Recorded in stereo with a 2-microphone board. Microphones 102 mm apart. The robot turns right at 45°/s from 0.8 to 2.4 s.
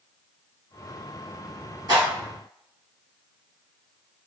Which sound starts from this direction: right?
A clap, at 1.9 s.